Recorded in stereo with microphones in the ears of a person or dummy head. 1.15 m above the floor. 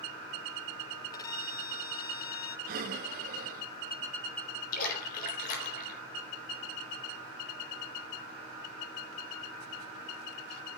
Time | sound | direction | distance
1.1 | a violin | 20° left (ahead or behind) | 0.6 m
2.7 | breathing | 50° right (ahead or behind) | 0.8 m
4.7 | a splash | 50° left (ahead or behind) | 4 m